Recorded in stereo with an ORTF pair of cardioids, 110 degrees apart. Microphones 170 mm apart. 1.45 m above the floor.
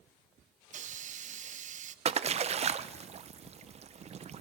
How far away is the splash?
About 1.0 m.